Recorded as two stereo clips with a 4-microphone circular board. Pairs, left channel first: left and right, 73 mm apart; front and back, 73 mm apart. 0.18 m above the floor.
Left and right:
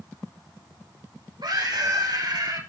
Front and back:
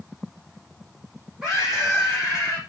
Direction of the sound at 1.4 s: 95° right.